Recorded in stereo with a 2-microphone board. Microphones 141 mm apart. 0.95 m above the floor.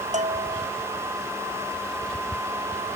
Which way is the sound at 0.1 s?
55° right (ahead or behind).